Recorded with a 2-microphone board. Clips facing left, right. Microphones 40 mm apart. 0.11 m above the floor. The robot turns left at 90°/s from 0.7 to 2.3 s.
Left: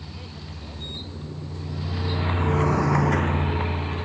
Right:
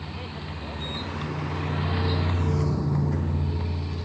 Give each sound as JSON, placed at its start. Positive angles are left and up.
{"t": 0.0, "sound": "a vehicle", "side_deg": -30}